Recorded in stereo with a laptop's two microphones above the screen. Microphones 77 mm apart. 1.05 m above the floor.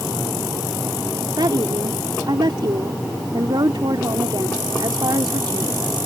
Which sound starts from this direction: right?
A woman speaking, at 1.4 s.